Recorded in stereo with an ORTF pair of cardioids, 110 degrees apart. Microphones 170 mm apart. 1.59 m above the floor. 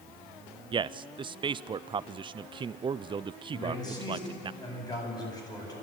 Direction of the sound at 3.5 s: 25° left.